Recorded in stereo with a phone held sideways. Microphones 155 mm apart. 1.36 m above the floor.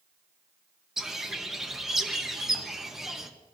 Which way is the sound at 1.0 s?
Centre (ahead or behind).